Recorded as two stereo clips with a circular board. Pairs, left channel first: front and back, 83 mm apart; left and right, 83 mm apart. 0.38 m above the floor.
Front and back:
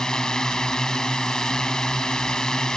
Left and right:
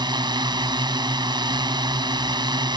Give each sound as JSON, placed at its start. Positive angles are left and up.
{"t": 0.0, "sound": "a drone", "azimuth_deg": -80}